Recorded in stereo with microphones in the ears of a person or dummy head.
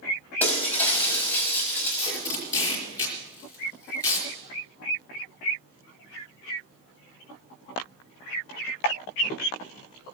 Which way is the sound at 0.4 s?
15° left (ahead or behind).